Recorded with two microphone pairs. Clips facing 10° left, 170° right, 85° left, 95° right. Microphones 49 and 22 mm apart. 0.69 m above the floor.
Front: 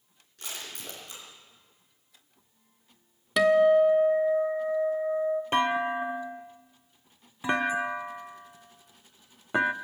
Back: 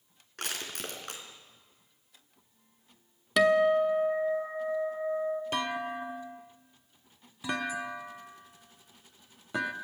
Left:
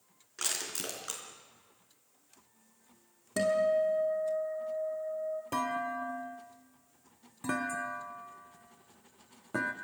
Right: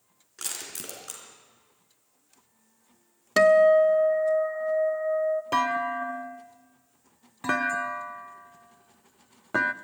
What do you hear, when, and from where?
0.4 s crushing: 160° left, 3.5 m
3.4 s a guitar: 80° right, 1.2 m
5.5 s a clunk: 50° right, 0.6 m